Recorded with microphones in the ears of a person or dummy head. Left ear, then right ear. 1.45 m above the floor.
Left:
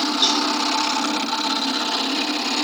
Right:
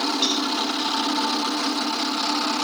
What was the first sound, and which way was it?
A cowbell, 20° left (ahead or behind).